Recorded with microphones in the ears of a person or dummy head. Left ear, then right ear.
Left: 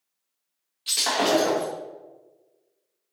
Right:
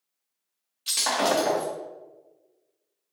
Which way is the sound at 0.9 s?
10° right (ahead or behind).